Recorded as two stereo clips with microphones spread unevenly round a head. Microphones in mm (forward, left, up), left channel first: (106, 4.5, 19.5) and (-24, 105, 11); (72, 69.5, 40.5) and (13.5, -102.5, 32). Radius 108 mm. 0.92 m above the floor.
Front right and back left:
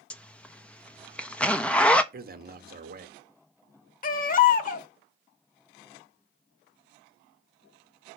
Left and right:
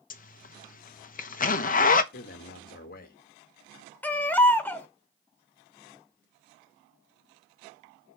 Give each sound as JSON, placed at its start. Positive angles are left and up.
{"t": 0.1, "sound": "a zipper", "azimuth_deg": 45, "distance_m": 1.0}
{"t": 2.1, "sound": "a man speaking", "azimuth_deg": 115, "distance_m": 1.2}
{"t": 4.0, "sound": "a baby crying", "azimuth_deg": -10, "distance_m": 1.1}